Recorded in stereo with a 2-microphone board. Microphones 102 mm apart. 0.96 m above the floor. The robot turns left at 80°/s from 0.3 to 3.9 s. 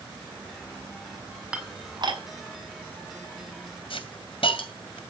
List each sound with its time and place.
1.5 s dishes clattering: 10° right (ahead or behind), 5 m; by 2.2 s 65° right (ahead or behind), 5 m
3.9 s a hiss: 65° left (ahead or behind), 2 m